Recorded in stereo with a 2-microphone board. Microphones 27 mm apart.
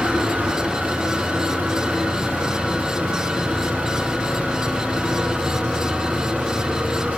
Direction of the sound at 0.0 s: 65° right (ahead or behind).